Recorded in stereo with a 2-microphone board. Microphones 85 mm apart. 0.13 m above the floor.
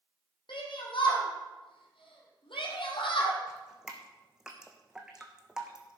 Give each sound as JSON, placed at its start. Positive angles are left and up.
{"t": 0.5, "sound": "a shout", "side_deg": 70, "distance_m": 4.5}
{"t": 3.5, "sound": "dripping", "side_deg": -5, "distance_m": 2.0}